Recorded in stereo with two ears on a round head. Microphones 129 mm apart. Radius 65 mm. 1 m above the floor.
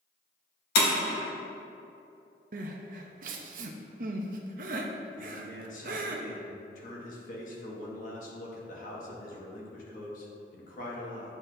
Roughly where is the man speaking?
Left.